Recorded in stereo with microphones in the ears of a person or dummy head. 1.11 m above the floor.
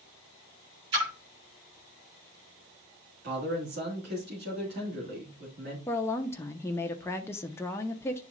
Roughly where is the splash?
Right.